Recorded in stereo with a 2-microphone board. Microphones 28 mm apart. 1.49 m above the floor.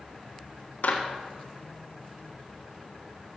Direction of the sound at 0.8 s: 65° left (ahead or behind).